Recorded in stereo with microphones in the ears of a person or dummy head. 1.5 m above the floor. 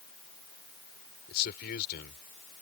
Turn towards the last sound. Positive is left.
turn(degrees=55)  # may be behind; listen again after turning